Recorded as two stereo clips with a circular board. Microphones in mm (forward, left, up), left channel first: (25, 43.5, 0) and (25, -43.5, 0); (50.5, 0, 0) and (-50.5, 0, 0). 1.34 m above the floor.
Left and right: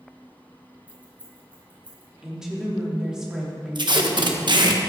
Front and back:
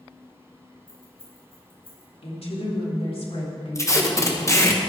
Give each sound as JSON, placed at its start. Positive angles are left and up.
{"t": 0.9, "sound": "keys jangling", "azimuth_deg": -25, "distance_m": 4.5}
{"t": 2.2, "sound": "a woman speaking", "azimuth_deg": -10, "distance_m": 3.0}
{"t": 3.8, "sound": "tape being pulled", "azimuth_deg": -60, "distance_m": 1.3}